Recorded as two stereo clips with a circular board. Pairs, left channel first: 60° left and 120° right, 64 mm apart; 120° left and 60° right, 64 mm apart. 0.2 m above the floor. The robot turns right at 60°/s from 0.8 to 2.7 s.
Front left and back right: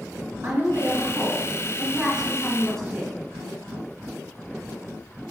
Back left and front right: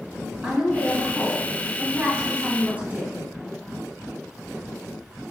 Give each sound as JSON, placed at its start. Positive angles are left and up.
{"t": 0.4, "sound": "a woman speaking", "azimuth_deg": -125, "distance_m": 1.1}